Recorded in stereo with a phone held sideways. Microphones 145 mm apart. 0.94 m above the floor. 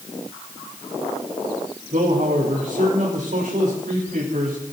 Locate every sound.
1.9 s a man speaking: 70° right (ahead or behind), 4 m